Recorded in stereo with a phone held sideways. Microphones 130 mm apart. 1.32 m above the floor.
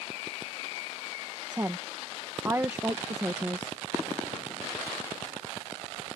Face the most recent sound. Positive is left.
turn(degrees=-20)  # may be behind; listen again after turning